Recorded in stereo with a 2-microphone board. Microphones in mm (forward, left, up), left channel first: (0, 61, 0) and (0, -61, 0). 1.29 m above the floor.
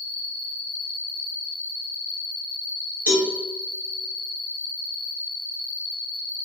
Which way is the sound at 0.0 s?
55° left (ahead or behind).